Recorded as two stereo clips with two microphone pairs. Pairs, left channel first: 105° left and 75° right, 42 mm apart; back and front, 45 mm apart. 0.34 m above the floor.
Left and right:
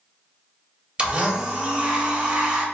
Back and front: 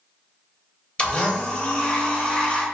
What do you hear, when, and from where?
1.0 s a blender: 120° right, 0.6 m